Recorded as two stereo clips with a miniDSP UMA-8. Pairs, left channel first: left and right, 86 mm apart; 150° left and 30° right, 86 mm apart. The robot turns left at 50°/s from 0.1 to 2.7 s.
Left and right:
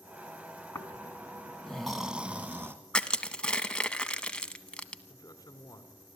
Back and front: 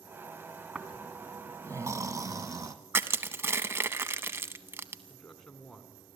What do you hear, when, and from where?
0.8 s snoring: 55° left, 1.6 m; by 2.8 s 40° right, 1.6 m
2.9 s crushing: 15° left, 0.8 m
5.1 s a man speaking: 70° left, 1.7 m